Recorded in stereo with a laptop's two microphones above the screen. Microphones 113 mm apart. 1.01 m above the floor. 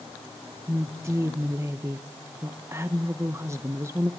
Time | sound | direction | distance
0.7 | a woman speaking | 25° right (ahead or behind) | 0.8 m